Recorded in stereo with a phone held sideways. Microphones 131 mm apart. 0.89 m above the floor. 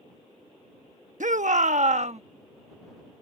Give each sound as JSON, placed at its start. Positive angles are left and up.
{"t": 1.2, "sound": "a shout", "side_deg": -70}